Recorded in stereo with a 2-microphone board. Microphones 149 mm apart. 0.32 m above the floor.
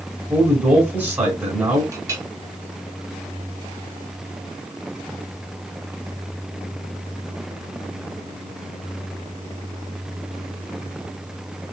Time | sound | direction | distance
0.3 | a man speaking | 15° right (ahead or behind) | 1.3 m
1.9 | a clink | 20° right (ahead or behind) | 0.8 m